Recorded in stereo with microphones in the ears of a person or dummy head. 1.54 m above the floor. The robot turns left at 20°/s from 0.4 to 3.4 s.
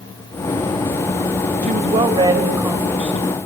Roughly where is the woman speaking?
Behind right.